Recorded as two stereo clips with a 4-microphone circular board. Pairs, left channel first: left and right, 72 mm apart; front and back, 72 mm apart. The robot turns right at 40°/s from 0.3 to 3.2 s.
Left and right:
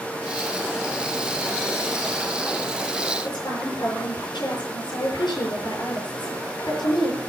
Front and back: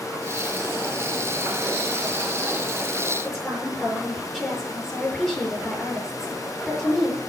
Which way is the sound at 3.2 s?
80° left.